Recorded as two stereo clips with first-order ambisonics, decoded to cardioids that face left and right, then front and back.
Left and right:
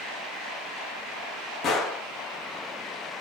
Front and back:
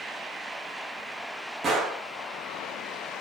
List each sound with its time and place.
1.6 s a gunshot: 130° left, 1.1 m